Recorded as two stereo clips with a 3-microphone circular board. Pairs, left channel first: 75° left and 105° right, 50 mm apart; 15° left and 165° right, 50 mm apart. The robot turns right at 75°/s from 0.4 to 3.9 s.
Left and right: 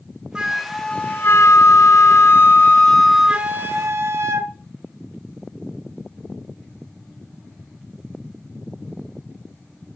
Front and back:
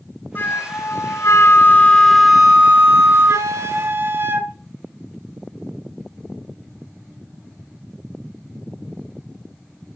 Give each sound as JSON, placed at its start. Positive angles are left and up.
{"t": 0.3, "sound": "a flute", "azimuth_deg": -30, "distance_m": 2.0}